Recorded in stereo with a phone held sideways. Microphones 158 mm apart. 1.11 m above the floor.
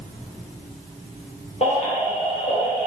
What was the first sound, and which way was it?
A baby crying, 40° left (ahead or behind).